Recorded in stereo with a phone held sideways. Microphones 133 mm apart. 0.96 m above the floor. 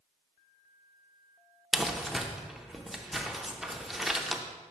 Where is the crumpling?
Centre (ahead or behind), 0.5 m.